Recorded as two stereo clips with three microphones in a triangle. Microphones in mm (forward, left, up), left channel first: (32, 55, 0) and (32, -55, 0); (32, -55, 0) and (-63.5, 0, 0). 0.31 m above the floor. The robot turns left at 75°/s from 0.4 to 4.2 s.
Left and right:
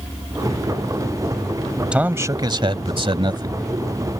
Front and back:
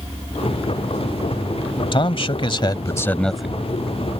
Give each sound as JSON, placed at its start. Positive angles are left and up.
{"t": 1.9, "sound": "a man speaking", "azimuth_deg": -10}